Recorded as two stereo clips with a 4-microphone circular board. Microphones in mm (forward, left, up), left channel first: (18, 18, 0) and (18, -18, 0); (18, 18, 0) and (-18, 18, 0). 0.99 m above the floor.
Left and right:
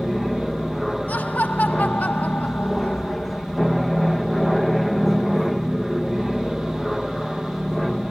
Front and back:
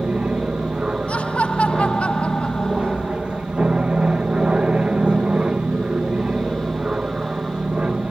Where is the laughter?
50° left.